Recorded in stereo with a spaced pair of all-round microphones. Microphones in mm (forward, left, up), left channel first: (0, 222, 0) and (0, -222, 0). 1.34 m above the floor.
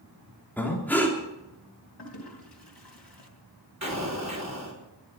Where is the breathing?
5° left (ahead or behind), 3.5 m.